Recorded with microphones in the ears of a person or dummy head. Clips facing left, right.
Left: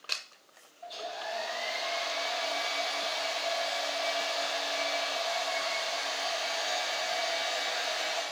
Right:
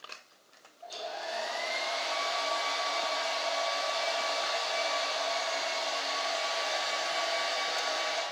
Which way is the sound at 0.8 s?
30° right (ahead or behind).